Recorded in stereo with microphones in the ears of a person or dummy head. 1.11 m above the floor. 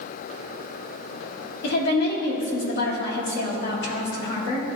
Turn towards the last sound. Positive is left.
turn(degrees=50)  # may be behind; listen again after turning